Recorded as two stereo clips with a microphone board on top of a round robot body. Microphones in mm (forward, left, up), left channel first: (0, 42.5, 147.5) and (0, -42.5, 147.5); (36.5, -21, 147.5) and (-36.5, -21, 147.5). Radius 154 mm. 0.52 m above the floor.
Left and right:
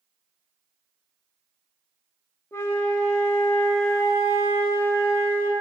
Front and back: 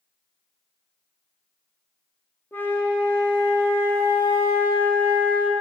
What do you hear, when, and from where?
2.5 s a flute: 45° left, 1.0 m